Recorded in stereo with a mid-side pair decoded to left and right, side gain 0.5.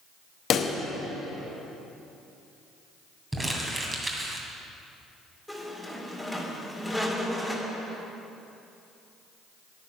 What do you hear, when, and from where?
0.5 s a pop: 55° left, 1.2 m
3.3 s crumpling: 25° right, 2.5 m
5.5 s a squeak: straight ahead, 2 m